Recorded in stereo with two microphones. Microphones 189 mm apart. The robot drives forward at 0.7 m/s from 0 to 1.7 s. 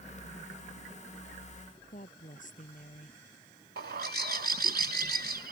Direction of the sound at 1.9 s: 45° left (ahead or behind).